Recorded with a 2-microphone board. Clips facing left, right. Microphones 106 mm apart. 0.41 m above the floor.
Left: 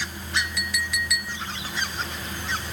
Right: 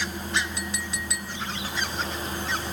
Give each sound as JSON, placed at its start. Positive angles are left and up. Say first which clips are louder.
{"t": 0.4, "sound": "a clink", "louder": "left 3 dB", "side_deg": -30}